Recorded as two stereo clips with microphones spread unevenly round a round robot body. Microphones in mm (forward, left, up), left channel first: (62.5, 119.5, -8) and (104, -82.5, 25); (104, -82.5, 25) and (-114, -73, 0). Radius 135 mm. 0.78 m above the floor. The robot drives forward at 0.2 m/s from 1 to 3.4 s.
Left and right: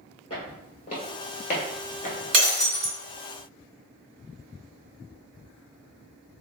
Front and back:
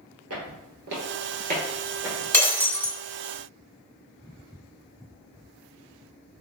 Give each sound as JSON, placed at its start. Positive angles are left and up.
{"t": 0.3, "sound": "footsteps", "azimuth_deg": 170, "distance_m": 1.1}
{"t": 2.3, "sound": "breaking glass", "azimuth_deg": -75, "distance_m": 0.9}